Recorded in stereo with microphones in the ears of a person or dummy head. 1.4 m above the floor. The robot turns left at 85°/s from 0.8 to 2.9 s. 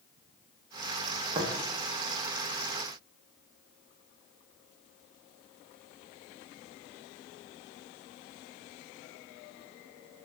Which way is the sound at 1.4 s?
25° right (ahead or behind).